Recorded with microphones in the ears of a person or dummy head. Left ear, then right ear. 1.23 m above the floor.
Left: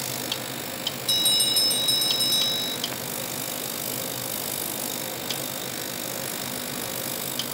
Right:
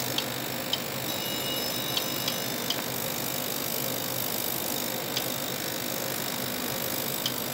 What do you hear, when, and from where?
1.1 s a bell: 35° left (ahead or behind), 4.5 m